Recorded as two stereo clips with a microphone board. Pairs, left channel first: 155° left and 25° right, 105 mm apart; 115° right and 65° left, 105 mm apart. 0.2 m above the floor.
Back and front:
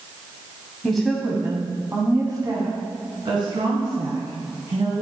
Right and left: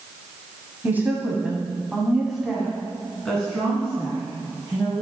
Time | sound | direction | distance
0.8 | a woman speaking | 85° left | 1.3 m